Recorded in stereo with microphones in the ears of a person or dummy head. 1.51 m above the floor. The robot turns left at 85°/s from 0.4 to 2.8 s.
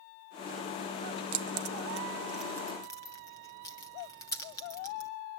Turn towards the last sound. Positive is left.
turn(degrees=20)  # may be behind; listen again after turning